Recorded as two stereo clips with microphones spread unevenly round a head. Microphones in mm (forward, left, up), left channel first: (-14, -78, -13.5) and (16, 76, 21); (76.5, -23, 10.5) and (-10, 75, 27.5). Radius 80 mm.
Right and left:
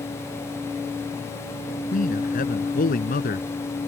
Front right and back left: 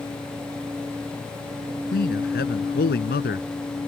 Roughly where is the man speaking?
Ahead right.